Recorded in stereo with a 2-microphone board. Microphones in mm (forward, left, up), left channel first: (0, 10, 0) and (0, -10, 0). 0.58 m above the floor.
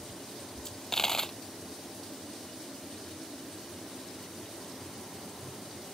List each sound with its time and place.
0.7 s a dropped coin: 25° left (ahead or behind)